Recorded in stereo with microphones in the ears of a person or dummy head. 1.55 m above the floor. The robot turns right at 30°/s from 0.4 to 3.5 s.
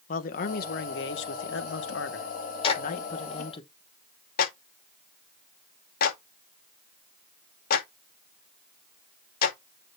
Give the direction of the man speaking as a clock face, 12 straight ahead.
10 o'clock.